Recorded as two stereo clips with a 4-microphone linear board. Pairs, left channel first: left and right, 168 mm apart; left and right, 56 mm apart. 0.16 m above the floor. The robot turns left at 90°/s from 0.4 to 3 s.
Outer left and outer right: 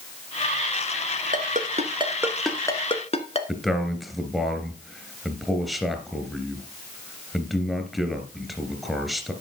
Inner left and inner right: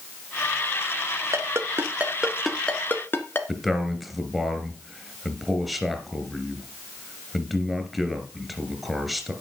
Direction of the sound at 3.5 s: Centre (ahead or behind).